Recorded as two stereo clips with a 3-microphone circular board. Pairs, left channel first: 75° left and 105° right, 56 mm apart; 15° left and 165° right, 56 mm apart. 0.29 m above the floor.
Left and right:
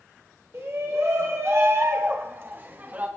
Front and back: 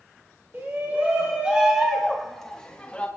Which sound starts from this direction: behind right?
A shout, at 0.5 s.